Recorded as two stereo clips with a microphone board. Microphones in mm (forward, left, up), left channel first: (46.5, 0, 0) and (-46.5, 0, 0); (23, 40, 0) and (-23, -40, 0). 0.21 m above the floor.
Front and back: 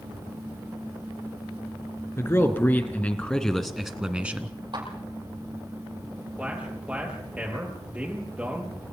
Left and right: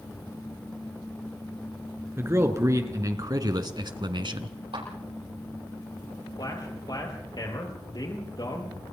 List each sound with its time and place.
2.2 s a man speaking: 60° right, 2.5 m; by 4.5 s 115° right, 1.9 m
4.7 s a clap: 145° right, 8.5 m
6.4 s a man speaking: 105° left, 6.5 m